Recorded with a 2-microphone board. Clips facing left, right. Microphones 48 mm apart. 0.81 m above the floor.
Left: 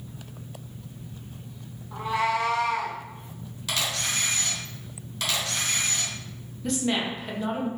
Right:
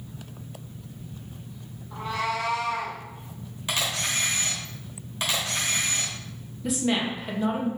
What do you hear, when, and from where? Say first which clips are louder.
1.9 s a cat meowing: left 3 dB; 5° left (ahead or behind), 0.9 m; by 3.0 s 60° left (ahead or behind), 1.2 m
3.7 s a camera shutter: right 1 dB; 25° right (ahead or behind), 1.5 m
6.6 s a woman speaking: right 1 dB; 5° right (ahead or behind), 0.8 m